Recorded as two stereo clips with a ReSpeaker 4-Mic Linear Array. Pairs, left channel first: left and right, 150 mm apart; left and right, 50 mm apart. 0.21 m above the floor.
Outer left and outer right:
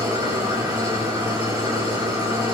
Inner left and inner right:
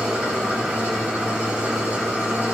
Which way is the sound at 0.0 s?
25° right (ahead or behind).